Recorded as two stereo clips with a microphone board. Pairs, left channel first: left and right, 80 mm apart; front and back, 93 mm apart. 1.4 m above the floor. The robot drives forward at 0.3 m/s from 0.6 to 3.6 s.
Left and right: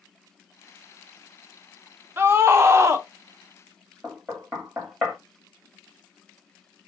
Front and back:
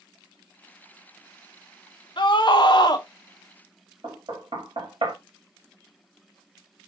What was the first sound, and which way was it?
A scream, 30° right.